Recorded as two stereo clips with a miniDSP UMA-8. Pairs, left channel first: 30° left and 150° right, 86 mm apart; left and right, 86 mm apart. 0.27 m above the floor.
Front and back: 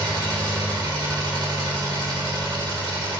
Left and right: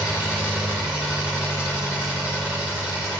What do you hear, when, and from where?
0.0 s an engine running: 165° right, 3 m